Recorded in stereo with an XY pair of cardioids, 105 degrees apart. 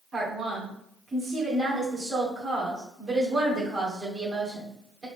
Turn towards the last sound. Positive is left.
turn(degrees=-50)